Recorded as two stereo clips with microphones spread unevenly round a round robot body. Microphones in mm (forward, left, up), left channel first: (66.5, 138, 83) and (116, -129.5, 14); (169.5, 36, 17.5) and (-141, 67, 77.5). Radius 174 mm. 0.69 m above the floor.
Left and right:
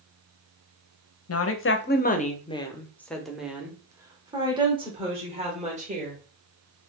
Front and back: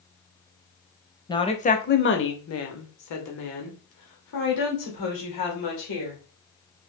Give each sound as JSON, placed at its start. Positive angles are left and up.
{"t": 1.3, "sound": "a woman speaking", "azimuth_deg": 65, "distance_m": 0.9}